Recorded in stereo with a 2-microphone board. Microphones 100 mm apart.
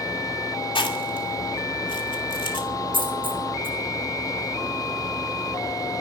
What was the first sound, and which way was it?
Chewing, 55° left (ahead or behind).